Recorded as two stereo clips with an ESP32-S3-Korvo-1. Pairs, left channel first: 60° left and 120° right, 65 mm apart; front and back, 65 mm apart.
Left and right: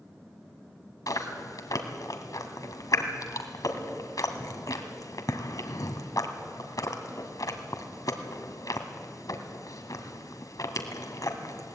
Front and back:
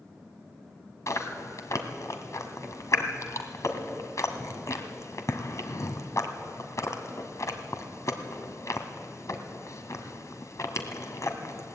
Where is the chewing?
35° left, 1.8 m.